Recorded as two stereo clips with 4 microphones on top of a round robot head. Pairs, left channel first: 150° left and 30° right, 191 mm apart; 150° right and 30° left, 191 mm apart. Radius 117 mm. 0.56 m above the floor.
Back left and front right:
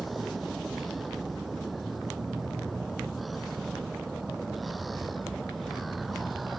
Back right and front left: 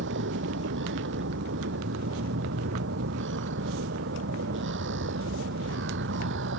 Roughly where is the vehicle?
Ahead left.